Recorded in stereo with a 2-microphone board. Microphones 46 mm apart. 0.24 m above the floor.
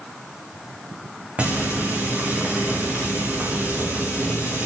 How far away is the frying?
About 6 m.